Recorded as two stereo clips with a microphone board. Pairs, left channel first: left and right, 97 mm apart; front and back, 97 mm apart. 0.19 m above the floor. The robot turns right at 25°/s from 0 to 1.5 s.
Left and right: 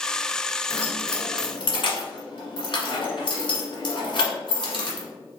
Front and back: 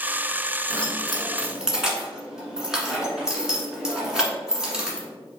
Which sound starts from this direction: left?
Keys jangling, at 0.7 s.